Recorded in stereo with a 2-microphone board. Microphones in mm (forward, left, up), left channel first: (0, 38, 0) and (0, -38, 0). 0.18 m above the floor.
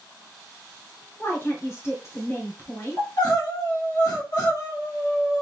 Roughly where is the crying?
Left.